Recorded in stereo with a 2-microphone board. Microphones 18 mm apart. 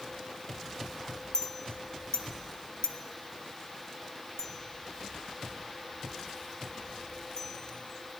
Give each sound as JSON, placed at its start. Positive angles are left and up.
{"t": 1.3, "sound": "a clink", "side_deg": 40, "distance_m": 0.5}